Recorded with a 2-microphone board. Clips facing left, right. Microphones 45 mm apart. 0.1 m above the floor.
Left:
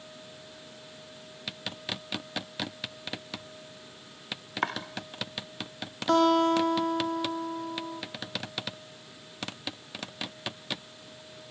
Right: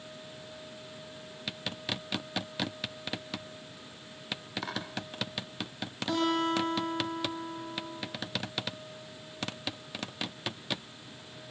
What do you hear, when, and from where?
4.6 s chopping: 50° left (ahead or behind), 3.5 m
6.1 s a guitar: 60° left (ahead or behind), 4 m